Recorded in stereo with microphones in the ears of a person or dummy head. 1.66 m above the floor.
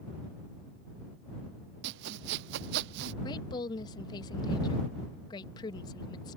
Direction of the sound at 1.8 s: 55° right (ahead or behind).